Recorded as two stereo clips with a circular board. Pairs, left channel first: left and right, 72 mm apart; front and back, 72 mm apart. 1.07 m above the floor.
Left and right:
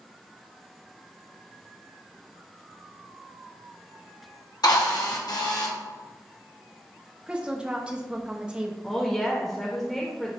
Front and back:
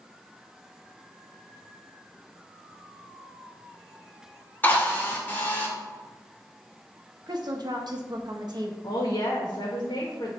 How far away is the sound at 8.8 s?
About 1.4 m.